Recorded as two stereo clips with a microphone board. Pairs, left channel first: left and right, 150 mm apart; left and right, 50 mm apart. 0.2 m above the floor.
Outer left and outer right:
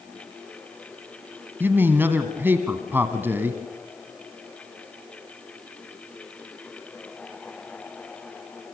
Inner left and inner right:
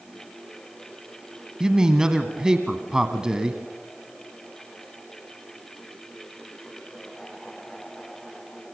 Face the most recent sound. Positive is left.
turn(degrees=-15)  # may be behind; listen again after turning